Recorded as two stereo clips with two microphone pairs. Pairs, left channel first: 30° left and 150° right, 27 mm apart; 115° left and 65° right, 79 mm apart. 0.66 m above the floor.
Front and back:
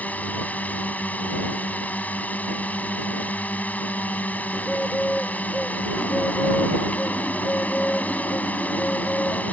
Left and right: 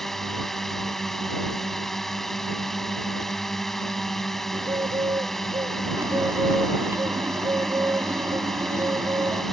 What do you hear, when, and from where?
0.0 s a drone: 30° left
4.5 s a bird: 30° right
6.0 s a bird: 10° right